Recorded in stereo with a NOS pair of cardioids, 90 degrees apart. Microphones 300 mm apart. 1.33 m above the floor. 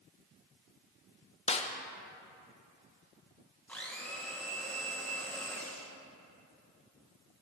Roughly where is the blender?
Ahead.